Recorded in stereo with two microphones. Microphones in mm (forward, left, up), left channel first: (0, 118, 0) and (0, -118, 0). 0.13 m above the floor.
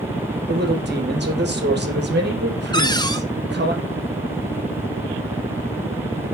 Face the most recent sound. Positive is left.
turn(degrees=15)  # may be behind; listen again after turning